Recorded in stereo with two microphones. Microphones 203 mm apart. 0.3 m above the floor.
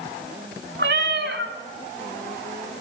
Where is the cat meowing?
60° right (ahead or behind), 0.9 m.